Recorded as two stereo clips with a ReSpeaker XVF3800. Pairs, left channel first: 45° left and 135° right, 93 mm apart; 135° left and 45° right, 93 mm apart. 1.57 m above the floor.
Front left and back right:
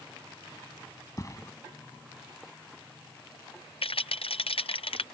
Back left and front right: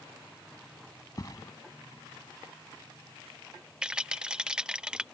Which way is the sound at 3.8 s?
35° left.